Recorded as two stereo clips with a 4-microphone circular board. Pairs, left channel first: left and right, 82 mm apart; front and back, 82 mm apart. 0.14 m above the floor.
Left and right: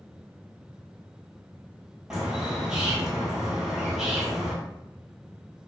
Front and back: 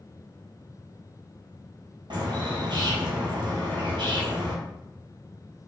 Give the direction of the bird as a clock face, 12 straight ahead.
6 o'clock.